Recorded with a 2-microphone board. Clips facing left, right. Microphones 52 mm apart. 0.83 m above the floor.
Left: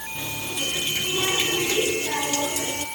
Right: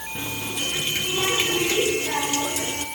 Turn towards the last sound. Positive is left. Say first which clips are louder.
# right 1 dB
turn(degrees=-20)  # may be behind; listen again after turning